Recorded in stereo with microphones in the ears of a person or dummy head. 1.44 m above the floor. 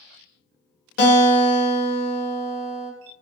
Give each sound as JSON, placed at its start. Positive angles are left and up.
{"t": 1.0, "sound": "a guitar", "side_deg": 70, "distance_m": 1.0}